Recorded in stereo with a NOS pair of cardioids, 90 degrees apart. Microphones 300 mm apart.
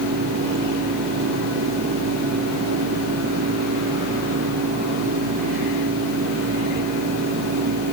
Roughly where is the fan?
Ahead right.